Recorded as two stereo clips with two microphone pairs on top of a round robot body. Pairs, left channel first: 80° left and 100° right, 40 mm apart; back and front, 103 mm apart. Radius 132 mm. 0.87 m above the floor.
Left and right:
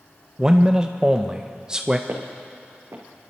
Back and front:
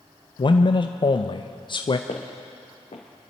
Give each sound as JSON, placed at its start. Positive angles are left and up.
{"t": 0.4, "sound": "a man speaking", "azimuth_deg": -170, "distance_m": 0.7}
{"t": 2.1, "sound": "footsteps", "azimuth_deg": -140, "distance_m": 2.0}